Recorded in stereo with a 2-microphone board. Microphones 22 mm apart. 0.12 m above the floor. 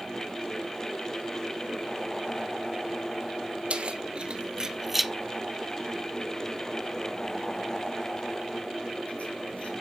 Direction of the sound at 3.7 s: 60° right (ahead or behind).